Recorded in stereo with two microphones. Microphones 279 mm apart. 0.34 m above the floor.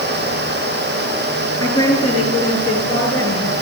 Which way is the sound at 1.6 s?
70° left (ahead or behind).